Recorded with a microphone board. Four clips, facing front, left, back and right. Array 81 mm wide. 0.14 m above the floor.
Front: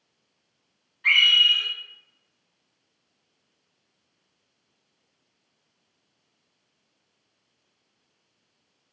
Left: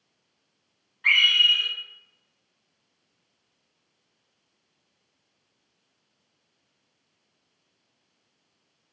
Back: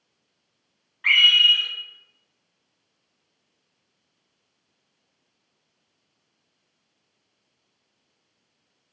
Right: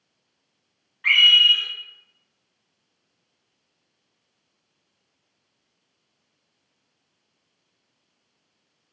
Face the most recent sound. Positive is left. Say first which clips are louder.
# right 3 dB, back 1 dB
turn(degrees=-165)